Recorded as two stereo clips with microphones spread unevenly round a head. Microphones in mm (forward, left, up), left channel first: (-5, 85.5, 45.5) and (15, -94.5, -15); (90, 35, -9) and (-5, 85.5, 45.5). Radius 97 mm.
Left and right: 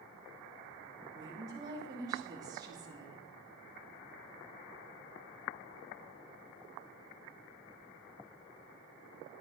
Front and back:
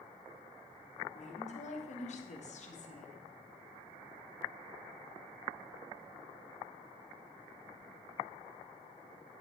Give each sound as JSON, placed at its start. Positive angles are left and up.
{"t": 1.1, "sound": "a woman speaking", "azimuth_deg": -10, "distance_m": 3.5}